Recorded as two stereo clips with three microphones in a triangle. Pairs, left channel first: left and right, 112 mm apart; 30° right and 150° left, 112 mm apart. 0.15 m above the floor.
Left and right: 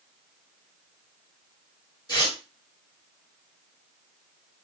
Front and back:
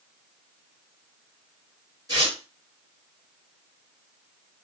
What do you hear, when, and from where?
2.1 s tearing paper: 115° left, 2.0 m